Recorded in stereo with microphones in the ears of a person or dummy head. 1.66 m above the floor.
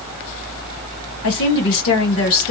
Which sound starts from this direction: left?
A woman speaking, at 1.2 s.